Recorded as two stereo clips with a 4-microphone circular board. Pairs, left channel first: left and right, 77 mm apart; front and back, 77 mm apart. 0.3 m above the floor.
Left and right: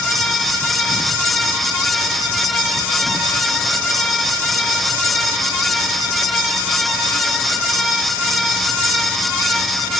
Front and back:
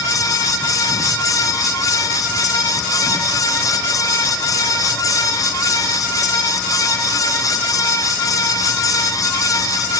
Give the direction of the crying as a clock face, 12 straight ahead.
I don't hear crying.